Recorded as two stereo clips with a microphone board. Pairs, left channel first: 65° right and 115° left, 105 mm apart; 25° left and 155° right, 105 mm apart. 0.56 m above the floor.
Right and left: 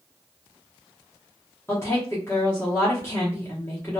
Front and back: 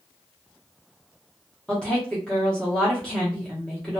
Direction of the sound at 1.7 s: 45° right.